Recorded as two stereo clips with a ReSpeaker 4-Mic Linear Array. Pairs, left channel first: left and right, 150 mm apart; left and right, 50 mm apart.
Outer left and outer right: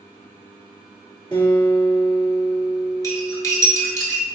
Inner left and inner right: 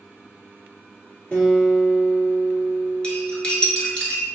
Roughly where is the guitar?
Left.